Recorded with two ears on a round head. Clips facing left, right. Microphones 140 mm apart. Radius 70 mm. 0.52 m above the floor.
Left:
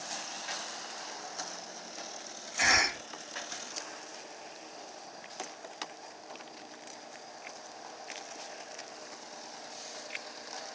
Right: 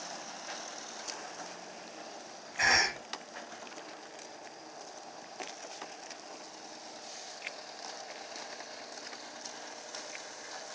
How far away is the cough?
About 1.6 m.